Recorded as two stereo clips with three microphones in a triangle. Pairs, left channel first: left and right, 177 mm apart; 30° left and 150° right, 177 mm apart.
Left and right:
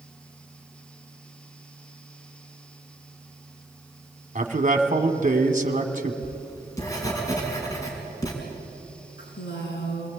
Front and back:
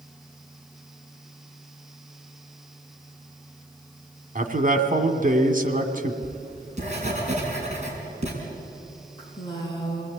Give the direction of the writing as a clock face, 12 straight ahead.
7 o'clock.